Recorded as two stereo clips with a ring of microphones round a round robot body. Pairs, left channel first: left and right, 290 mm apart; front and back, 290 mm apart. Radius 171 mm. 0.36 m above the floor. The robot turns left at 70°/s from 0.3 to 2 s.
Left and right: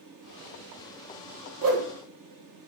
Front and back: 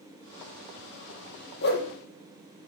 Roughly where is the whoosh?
Ahead right.